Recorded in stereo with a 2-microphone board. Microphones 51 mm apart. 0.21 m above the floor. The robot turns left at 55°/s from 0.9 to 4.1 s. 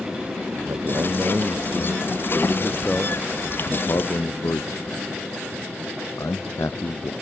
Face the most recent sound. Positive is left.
turn(degrees=80)